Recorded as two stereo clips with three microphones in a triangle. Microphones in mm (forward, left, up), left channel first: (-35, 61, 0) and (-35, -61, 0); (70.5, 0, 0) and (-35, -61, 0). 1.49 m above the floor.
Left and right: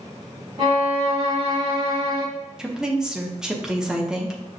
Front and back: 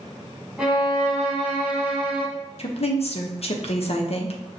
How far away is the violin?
About 1.8 m.